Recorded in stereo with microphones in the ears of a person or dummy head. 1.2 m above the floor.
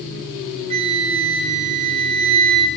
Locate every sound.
0.7 s a flute: 35° right (ahead or behind), 3.5 m